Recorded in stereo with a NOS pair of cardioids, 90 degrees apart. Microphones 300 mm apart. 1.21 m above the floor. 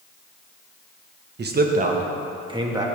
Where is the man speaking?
35° right, 1.3 m; by 2.9 s 10° right, 2 m.